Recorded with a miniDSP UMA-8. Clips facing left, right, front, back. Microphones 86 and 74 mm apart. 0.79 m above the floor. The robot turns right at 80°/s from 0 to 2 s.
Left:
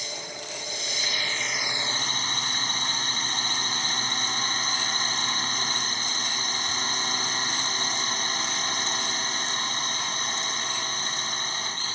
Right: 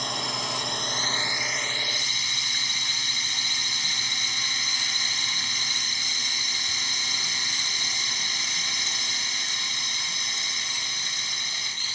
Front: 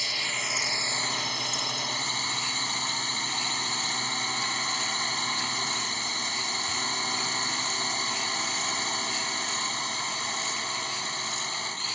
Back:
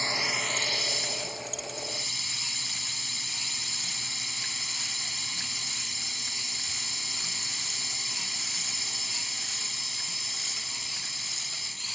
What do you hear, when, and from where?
0.0 s a drone: 120° right; by 11.9 s 40° left